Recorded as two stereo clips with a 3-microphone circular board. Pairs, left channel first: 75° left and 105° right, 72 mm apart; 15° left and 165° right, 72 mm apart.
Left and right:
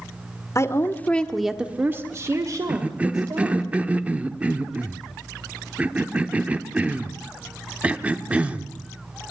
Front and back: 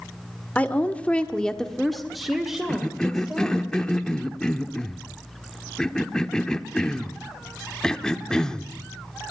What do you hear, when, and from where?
0.6 s a woman speaking: 75° left, 1.6 m; by 3.7 s 85° right, 3.5 m
2.7 s a cough: 55° right, 0.9 m